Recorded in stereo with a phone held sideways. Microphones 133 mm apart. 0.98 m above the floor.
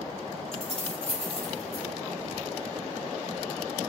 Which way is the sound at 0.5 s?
55° left (ahead or behind).